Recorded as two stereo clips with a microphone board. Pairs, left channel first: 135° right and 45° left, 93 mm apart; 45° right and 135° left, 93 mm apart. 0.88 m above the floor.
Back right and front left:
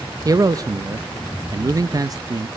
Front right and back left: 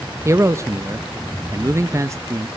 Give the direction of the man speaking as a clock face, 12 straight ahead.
9 o'clock.